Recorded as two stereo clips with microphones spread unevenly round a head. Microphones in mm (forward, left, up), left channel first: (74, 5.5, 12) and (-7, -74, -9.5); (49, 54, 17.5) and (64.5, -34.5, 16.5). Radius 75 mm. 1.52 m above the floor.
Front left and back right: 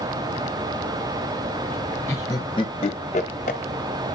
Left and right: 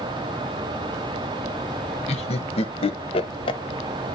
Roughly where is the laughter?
Behind left.